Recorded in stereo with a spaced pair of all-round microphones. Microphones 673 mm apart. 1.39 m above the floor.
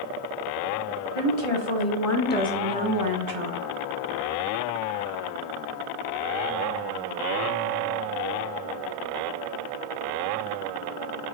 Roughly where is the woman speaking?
Left.